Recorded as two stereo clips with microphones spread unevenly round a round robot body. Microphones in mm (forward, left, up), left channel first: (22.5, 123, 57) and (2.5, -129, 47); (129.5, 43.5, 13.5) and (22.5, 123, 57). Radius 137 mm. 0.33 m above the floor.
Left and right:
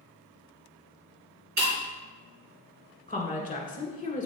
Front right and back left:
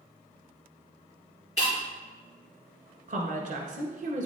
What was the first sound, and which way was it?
Breaking glass, 75° right.